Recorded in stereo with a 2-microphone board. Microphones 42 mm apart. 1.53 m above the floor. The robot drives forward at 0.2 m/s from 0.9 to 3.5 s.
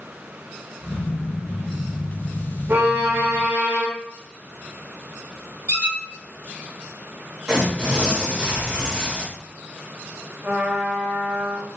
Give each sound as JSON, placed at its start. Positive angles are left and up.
{"t": 2.7, "sound": "a violin", "side_deg": -65, "distance_m": 0.6}
{"t": 5.7, "sound": "a squeak", "side_deg": -45, "distance_m": 1.0}
{"t": 7.5, "sound": "tearing paper", "side_deg": -20, "distance_m": 1.1}
{"t": 10.4, "sound": "a trumpet", "side_deg": -20, "distance_m": 0.6}